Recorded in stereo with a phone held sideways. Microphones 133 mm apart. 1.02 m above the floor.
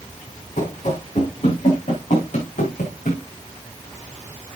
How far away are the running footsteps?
About 6 m.